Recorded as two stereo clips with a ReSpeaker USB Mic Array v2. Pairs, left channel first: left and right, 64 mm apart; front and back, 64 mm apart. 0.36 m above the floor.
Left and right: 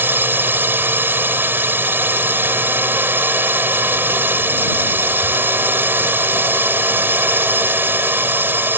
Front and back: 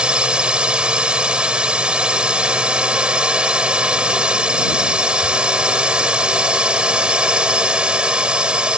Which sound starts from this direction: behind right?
A drone, at 0.0 s.